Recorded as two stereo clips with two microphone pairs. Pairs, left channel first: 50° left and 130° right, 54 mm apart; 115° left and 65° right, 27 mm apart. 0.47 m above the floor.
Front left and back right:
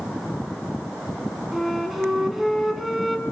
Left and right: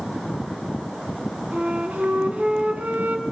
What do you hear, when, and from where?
1.5 s a flute: 40° right, 3 m